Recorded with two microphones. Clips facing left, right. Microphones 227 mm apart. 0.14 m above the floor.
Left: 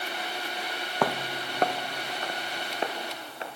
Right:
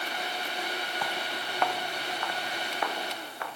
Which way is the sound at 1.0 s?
70° left (ahead or behind).